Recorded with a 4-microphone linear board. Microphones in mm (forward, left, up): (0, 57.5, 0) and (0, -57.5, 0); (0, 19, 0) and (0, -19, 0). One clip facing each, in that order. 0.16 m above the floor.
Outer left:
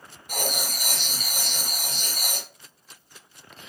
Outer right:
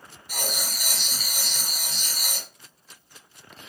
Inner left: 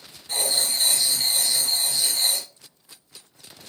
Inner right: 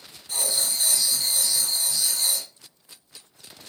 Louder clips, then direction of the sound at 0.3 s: Outer left 3 dB, inner left 3 dB; 50° left (ahead or behind).